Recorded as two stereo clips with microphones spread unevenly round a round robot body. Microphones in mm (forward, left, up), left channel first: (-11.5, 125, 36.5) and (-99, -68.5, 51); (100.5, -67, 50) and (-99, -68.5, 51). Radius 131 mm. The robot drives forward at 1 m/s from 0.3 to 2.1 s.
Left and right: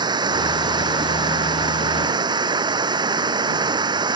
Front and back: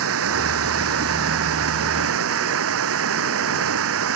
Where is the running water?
175° left.